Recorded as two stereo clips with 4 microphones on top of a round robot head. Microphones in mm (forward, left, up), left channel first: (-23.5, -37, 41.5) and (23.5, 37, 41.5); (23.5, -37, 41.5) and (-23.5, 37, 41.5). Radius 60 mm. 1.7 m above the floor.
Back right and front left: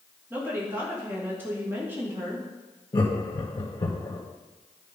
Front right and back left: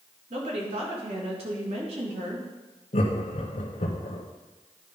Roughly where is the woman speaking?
Behind left.